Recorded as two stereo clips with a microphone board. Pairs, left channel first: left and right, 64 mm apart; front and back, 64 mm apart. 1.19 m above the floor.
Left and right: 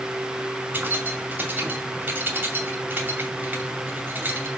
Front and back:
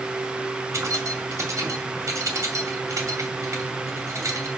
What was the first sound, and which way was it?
Keys jangling, 150° right.